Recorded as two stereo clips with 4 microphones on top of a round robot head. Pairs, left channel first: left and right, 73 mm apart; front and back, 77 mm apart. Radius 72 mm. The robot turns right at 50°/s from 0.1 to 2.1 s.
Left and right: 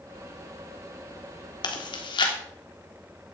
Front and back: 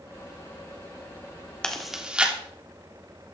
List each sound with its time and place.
1.6 s chewing: 80° left, 3 m; by 2.3 s 105° left, 3 m